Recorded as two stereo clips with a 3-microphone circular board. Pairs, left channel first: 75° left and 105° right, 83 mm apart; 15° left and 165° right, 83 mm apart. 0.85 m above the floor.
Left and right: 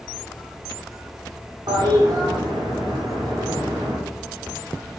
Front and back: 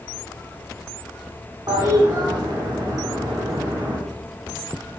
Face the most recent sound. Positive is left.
turn(degrees=-130)